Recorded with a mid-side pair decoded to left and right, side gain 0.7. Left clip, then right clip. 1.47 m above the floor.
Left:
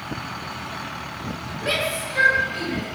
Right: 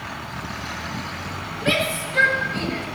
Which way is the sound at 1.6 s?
20° right.